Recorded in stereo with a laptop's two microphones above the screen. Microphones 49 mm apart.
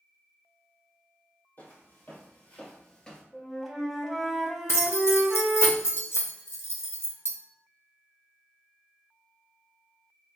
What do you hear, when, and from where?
1.6 s footsteps: 50° left (ahead or behind), 1.8 m; by 3.2 s 15° left (ahead or behind), 1.0 m
3.3 s a flute: 5° left (ahead or behind), 0.9 m
4.7 s keys jangling: 60° left (ahead or behind), 0.6 m